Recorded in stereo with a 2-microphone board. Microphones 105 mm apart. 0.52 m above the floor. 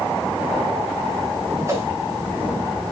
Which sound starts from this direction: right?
A whoosh, at 1.6 s.